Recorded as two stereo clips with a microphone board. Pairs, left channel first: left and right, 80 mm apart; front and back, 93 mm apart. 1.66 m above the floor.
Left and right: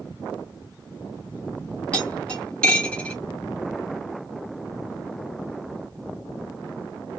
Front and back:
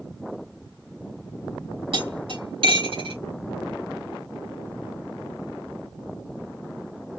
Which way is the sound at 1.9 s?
165° left.